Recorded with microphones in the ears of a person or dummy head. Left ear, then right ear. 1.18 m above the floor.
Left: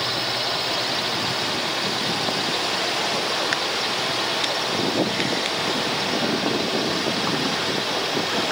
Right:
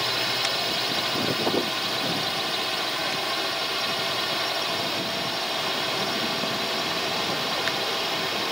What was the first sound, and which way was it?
A drone, 25° right (ahead or behind).